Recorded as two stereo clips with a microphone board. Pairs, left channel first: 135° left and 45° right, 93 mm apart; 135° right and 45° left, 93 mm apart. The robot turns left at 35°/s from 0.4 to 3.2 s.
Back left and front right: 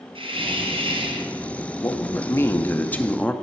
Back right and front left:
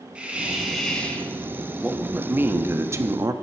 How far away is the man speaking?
About 0.6 m.